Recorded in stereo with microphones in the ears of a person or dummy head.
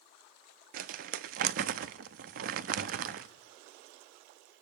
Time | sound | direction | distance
0.7 | crumpling | 55° right (ahead or behind) | 0.7 m